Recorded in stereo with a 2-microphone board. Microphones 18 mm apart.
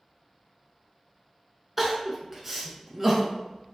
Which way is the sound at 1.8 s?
10° right (ahead or behind).